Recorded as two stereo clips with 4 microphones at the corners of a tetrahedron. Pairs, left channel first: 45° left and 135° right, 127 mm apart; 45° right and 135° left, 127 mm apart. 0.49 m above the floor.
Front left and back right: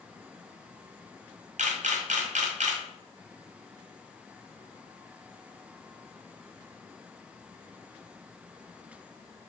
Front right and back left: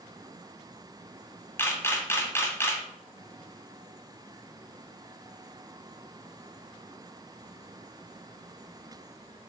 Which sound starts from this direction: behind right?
A camera shutter, at 1.6 s.